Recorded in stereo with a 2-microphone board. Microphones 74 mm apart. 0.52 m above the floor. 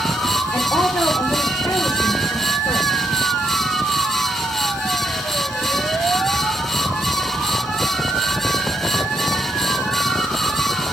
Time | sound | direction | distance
0.5 | a woman speaking | 20° left (ahead or behind) | 1.2 m